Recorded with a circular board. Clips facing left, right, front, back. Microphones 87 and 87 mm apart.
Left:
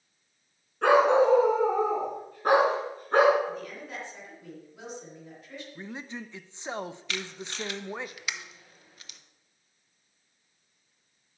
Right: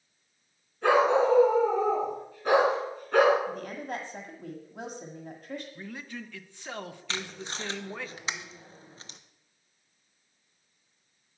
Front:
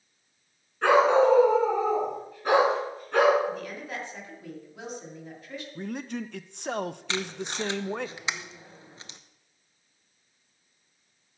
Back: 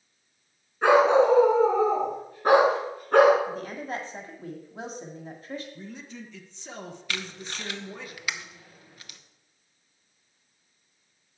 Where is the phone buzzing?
I don't hear a phone buzzing.